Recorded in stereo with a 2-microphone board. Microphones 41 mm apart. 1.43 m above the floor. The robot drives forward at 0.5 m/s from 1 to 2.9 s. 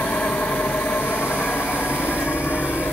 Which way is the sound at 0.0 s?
70° left (ahead or behind).